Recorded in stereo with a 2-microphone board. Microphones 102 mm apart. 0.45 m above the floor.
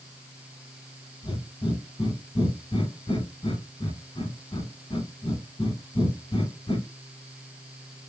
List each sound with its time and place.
1.2 s breathing: 50° left (ahead or behind), 1.1 m